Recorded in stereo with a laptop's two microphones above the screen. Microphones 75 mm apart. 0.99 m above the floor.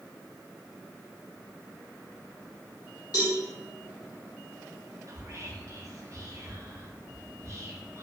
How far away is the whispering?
About 0.6 m.